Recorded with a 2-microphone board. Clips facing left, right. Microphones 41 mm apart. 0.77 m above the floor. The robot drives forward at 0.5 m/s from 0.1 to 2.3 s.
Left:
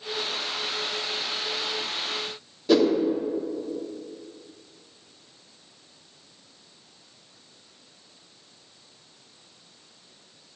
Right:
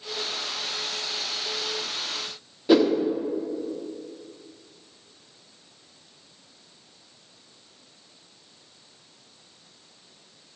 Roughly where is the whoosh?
Centre.